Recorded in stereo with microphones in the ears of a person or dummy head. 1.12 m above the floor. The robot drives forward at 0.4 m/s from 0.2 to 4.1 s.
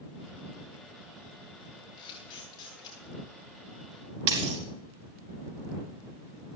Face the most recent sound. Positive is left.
turn(degrees=-70)  # may be behind; listen again after turning